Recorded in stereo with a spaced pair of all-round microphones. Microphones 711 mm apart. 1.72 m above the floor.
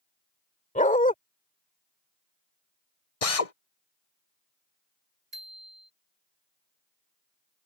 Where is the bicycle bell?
80° right.